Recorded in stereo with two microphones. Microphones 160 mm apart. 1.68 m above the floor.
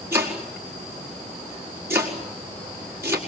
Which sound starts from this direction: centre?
Chopping, at 0.1 s.